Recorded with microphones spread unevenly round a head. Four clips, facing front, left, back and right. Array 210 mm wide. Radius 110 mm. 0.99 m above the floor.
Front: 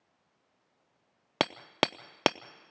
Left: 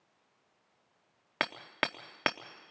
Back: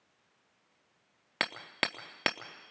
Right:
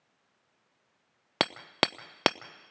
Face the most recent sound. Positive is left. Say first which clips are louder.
# right 5 dB, front 6 dB
turn(degrees=-50)